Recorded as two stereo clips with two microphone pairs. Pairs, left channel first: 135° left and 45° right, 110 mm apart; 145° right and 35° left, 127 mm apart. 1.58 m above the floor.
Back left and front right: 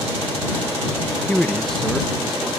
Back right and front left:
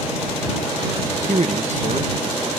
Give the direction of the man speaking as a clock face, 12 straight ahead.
10 o'clock.